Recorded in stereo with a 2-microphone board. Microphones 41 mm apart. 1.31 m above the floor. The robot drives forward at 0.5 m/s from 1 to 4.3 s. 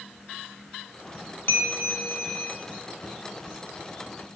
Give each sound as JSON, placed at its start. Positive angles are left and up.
{"t": 1.5, "sound": "a bell", "side_deg": 75, "distance_m": 1.7}